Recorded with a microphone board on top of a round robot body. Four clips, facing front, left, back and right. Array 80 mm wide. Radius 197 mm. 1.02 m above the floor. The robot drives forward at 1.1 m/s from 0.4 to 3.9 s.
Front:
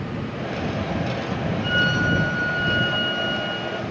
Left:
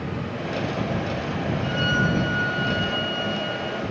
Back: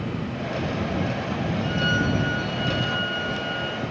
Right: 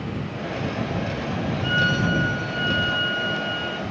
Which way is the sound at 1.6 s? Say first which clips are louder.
Right 2 dB, front 3 dB; 50° right.